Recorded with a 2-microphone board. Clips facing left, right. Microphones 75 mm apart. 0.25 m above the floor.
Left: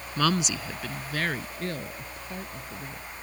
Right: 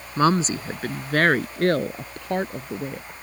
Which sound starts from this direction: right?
A woman speaking, at 0.2 s.